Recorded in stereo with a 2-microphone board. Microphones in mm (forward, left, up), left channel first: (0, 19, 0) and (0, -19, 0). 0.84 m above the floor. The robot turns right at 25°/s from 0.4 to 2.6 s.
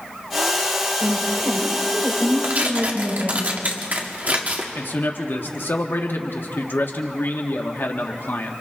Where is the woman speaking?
85° right, 4.5 m; by 3.4 s 45° right, 4.5 m.